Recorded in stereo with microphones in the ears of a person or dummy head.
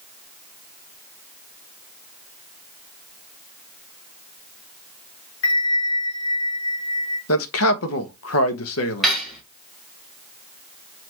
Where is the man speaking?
70° left (ahead or behind), 0.9 m.